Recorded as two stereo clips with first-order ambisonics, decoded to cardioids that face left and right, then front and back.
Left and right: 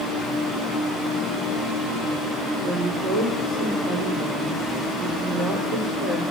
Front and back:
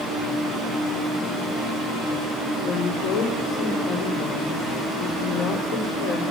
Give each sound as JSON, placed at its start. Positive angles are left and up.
{"t": 2.6, "sound": "a woman speaking", "azimuth_deg": -30, "distance_m": 5.5}